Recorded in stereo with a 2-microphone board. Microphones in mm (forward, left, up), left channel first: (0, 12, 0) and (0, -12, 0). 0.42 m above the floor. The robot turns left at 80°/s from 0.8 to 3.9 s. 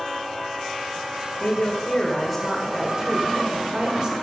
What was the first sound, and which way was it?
A woman speaking, 90° left.